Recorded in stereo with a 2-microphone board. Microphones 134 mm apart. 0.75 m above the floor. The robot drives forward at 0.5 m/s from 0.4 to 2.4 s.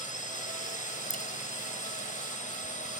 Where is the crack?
70° left (ahead or behind).